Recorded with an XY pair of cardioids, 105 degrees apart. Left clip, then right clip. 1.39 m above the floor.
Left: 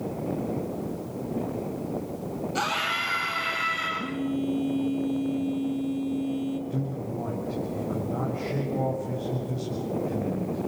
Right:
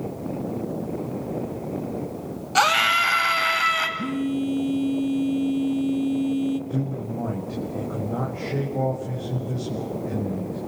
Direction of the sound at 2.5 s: 65° right.